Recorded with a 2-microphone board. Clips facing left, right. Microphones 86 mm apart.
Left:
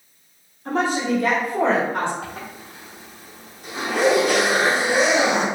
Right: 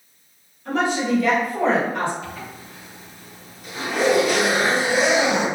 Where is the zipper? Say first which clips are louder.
Even; 65° left (ahead or behind), 1.3 m.